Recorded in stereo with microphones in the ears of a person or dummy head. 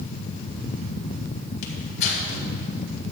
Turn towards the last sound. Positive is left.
turn(degrees=70)  # may be behind; listen again after turning